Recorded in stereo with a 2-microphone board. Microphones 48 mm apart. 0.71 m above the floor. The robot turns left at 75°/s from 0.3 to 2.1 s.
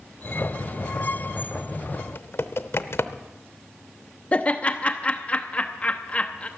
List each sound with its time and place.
2.0 s typing on a keyboard: 65° left (ahead or behind), 0.6 m; by 3.2 s 60° left (ahead or behind), 0.6 m
4.3 s laughter: 30° left (ahead or behind), 0.9 m